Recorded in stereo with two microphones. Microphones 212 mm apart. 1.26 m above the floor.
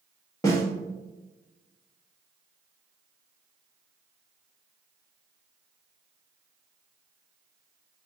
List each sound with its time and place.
0.4 s a snare drum: 15° left (ahead or behind), 1.6 m